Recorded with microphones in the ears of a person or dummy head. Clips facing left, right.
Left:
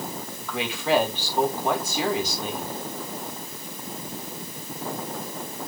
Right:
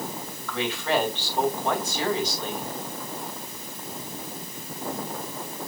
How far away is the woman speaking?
About 3.5 m.